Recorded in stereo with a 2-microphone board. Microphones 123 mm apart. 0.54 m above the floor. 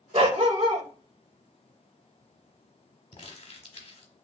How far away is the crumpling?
About 1.0 m.